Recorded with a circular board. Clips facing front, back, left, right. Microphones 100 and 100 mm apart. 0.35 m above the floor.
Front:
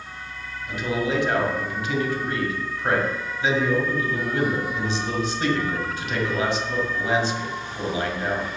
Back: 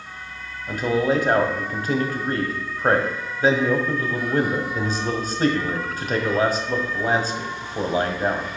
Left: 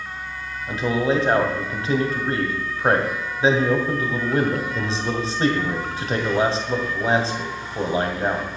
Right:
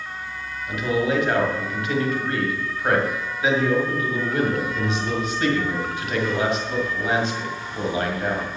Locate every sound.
0.7 s a man speaking: 140° left, 2.0 m